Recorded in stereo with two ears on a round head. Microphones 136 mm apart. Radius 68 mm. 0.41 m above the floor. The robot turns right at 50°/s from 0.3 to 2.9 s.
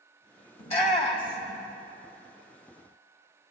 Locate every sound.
0.6 s a shout: 40° left (ahead or behind), 1.8 m; by 1.6 s 30° left (ahead or behind), 1.8 m